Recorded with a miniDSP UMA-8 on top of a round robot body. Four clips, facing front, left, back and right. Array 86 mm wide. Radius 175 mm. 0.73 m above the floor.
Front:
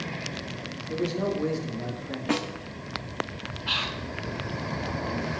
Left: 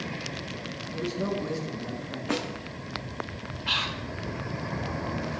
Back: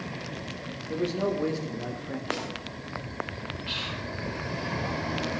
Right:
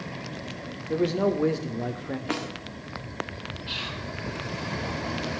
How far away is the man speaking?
About 3.5 m.